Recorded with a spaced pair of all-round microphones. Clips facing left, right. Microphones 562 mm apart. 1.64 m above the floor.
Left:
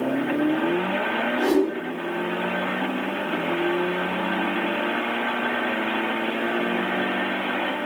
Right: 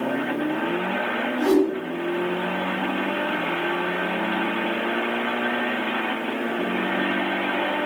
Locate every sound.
1.4 s a whoosh: 65° left (ahead or behind), 1.7 m